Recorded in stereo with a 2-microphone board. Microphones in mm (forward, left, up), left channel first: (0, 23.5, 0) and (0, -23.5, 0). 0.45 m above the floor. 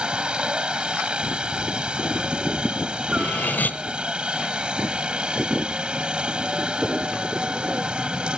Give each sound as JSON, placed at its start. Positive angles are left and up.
{"t": 0.0, "sound": "a helicopter", "side_deg": -20}
{"t": 3.1, "sound": "cutlery clinking", "side_deg": 40}